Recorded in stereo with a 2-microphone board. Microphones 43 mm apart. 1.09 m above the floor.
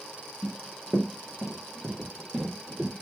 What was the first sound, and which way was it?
Running footsteps, 5° right (ahead or behind).